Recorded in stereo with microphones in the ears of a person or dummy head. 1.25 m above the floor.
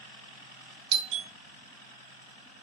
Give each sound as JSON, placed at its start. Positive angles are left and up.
{"t": 0.9, "sound": "a doorbell", "side_deg": -30, "distance_m": 0.9}